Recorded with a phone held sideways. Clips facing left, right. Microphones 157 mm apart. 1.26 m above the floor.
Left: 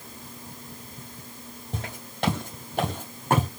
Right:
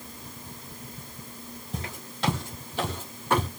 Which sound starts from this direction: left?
Footsteps, at 1.7 s.